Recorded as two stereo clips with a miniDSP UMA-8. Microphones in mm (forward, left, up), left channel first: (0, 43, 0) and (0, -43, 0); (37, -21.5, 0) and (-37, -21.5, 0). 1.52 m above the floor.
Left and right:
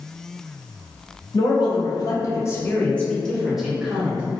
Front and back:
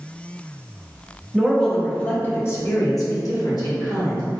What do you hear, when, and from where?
1.3 s a man speaking: 90° left, 0.9 m; by 4.4 s 15° right, 1.2 m